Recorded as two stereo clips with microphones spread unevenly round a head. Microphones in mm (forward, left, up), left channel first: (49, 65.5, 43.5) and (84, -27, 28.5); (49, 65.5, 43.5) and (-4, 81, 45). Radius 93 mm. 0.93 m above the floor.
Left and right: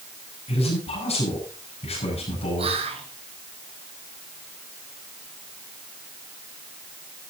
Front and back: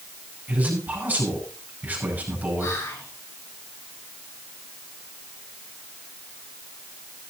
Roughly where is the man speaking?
Left.